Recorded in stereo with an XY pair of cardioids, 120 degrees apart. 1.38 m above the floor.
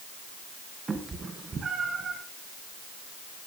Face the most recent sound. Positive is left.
turn(degrees=-40)